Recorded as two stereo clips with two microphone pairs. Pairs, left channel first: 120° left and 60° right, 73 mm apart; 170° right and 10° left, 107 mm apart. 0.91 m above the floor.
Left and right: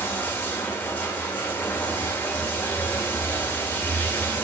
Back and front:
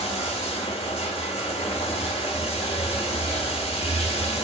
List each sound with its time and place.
0.0 s running water: 175° right, 1.8 m